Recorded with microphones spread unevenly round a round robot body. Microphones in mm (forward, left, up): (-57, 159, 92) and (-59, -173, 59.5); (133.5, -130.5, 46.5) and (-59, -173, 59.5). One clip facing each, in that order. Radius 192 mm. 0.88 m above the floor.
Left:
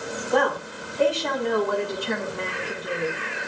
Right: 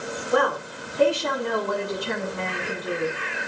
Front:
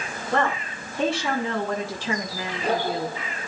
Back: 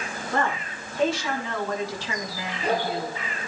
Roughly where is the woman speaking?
Ahead.